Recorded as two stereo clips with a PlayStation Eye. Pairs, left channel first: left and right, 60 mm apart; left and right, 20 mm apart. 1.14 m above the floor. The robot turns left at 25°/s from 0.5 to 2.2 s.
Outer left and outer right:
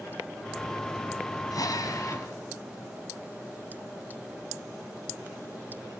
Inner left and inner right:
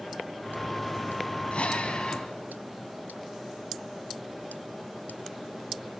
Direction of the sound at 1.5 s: 75° left (ahead or behind).